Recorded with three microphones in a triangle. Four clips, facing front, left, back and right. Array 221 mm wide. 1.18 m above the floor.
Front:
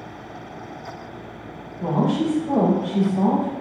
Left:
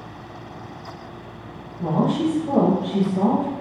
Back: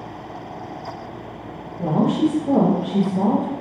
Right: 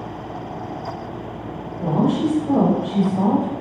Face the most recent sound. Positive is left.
turn(degrees=120)